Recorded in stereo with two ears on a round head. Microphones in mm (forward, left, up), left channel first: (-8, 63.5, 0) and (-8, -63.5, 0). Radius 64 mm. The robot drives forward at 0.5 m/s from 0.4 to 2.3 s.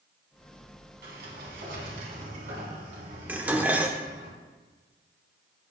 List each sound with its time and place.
1.0 s a sliding door: 75° right (ahead or behind), 3.5 m; by 4.3 s 70° right (ahead or behind), 3.5 m
3.3 s dishes clattering: 10° right (ahead or behind), 0.9 m